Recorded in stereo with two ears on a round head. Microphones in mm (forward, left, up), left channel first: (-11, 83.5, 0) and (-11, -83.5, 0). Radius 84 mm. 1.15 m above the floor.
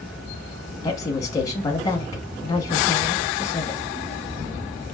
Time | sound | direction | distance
0.8 | a woman speaking | 20° left (ahead or behind) | 0.9 m